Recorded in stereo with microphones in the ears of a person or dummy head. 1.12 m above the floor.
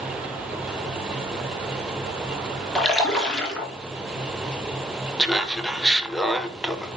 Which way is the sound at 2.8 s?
Centre (ahead or behind).